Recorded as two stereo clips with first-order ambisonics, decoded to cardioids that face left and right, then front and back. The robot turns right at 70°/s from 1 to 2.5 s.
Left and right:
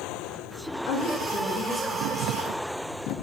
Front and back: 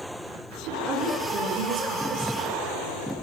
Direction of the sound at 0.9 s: 115° left.